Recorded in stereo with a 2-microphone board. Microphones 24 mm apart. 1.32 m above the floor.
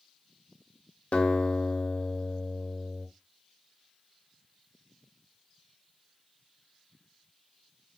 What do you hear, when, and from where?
1.1 s a guitar: 60° left (ahead or behind), 1.3 m